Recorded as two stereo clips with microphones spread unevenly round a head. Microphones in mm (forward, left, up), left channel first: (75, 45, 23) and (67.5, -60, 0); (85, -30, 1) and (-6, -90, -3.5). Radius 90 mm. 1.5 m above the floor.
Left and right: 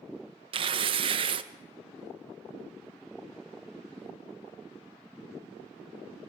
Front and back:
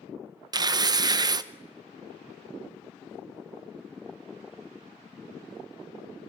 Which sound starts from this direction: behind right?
Tearing paper, at 0.5 s.